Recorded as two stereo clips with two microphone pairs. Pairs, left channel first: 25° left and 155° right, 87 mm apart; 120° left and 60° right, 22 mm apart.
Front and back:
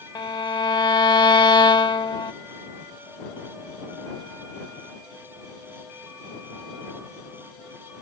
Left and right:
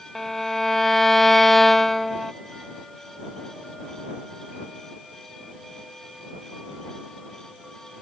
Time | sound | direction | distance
0.1 | a violin | 40° left | ?